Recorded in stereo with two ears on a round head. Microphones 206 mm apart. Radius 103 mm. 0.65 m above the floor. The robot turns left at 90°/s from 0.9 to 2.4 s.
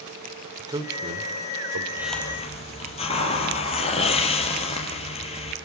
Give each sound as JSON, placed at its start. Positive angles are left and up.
{"t": 0.6, "sound": "a man speaking", "side_deg": -15, "distance_m": 2.5}
{"t": 2.0, "sound": "a hiss", "azimuth_deg": -170, "distance_m": 4.5}